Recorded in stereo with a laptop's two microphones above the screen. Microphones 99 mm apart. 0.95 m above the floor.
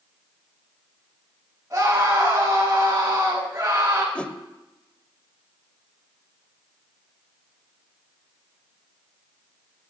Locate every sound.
1.7 s a scream: 30° right (ahead or behind), 8.5 m
4.2 s a whoosh: 10° left (ahead or behind), 0.7 m